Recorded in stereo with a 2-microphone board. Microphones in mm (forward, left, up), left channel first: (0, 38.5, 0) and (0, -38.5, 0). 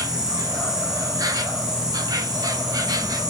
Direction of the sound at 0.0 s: 50° right (ahead or behind).